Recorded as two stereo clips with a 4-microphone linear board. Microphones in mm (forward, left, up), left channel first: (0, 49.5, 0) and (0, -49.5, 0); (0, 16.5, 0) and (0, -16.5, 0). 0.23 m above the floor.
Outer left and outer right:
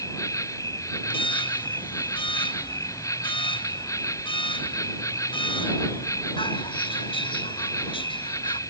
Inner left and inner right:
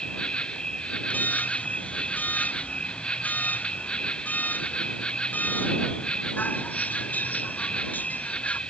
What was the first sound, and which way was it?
An insect, 35° left (ahead or behind).